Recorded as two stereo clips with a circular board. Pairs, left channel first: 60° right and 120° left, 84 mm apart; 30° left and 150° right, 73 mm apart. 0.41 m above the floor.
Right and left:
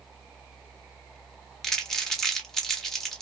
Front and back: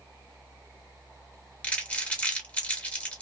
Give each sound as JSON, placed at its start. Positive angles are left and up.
{"t": 1.6, "sound": "crumpling", "azimuth_deg": 15, "distance_m": 1.1}